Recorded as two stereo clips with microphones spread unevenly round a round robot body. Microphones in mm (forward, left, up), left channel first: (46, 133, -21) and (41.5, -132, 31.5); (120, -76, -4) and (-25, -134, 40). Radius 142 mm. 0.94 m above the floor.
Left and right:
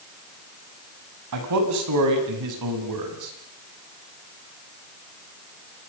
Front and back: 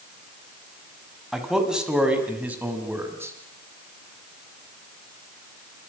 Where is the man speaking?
70° right, 7 m; by 3.3 s 85° right, 7 m.